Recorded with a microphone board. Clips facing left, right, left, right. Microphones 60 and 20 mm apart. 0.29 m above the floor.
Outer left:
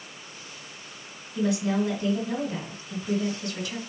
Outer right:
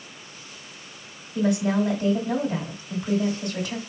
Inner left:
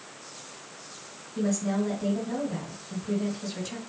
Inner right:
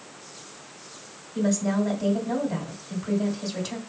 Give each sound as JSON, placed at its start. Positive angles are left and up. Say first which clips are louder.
{"t": 1.4, "sound": "a woman speaking", "louder": "outer right 3 dB, inner right 3 dB", "side_deg": -35, "distance_m": 1.8}